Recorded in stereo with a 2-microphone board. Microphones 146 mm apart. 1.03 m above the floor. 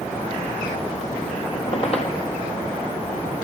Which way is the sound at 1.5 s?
45° left (ahead or behind).